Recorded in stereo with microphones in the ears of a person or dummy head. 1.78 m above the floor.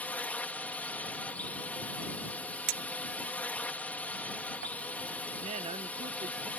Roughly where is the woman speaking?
Right.